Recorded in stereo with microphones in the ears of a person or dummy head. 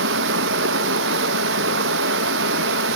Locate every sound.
0.0 s running water: 65° right (ahead or behind), 1.7 m